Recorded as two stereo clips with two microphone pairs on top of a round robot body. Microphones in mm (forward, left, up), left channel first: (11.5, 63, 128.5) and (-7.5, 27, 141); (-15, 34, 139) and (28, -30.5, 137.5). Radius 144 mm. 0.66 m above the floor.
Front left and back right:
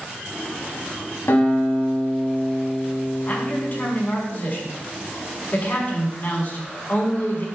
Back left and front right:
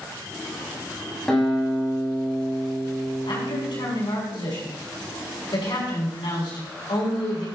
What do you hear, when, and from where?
1.3 s a guitar: 40° left, 6.5 m
3.3 s a man speaking: 105° left, 6 m